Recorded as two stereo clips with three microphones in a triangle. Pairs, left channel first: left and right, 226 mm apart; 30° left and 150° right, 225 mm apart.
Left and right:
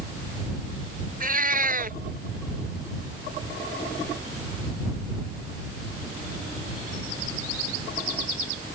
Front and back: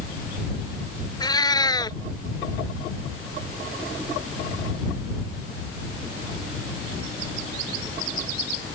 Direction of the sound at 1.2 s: 40° right.